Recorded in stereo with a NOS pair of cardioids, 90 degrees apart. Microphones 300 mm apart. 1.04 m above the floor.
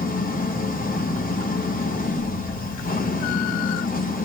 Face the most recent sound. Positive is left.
turn(degrees=30)